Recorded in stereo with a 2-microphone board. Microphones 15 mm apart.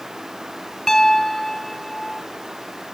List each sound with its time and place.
0.9 s a piano: 25° left (ahead or behind), 1.1 m